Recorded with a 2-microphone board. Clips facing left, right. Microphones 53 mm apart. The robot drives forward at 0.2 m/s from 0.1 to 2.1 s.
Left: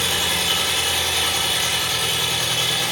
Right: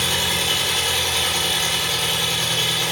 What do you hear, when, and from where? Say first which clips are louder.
0.0 s an engine running: even; 25° left (ahead or behind), 1.4 m; by 2.9 s 20° left (ahead or behind), 1.7 m